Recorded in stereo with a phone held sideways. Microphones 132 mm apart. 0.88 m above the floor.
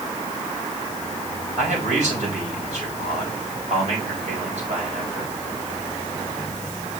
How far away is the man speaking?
About 7 m.